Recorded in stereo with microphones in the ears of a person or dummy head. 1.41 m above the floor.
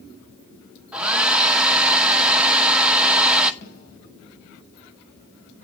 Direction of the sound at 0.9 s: 10° right (ahead or behind).